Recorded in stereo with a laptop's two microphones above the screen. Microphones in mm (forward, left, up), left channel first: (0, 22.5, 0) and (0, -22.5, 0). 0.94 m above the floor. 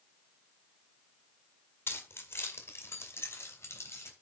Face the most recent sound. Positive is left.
turn(degrees=80)